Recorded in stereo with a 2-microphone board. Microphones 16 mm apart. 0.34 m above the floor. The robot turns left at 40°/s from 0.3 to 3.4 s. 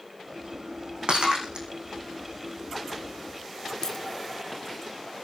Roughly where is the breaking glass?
Right.